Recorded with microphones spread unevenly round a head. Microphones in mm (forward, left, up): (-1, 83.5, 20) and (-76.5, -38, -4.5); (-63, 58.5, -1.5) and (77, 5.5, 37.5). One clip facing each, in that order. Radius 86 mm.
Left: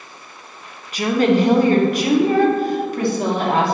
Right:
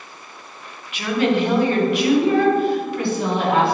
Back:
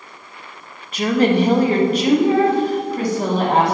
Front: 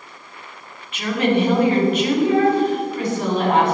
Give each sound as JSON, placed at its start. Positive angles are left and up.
{"t": 0.9, "sound": "a woman speaking", "azimuth_deg": 110, "distance_m": 1.4}